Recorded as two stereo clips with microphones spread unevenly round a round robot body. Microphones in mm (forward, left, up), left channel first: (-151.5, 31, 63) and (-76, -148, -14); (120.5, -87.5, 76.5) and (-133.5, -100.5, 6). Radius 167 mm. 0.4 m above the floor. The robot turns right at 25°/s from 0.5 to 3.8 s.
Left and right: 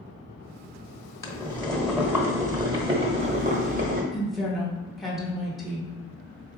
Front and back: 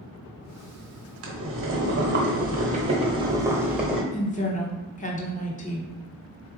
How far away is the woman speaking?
About 0.9 m.